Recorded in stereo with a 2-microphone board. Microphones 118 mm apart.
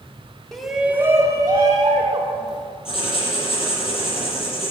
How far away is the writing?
About 7 m.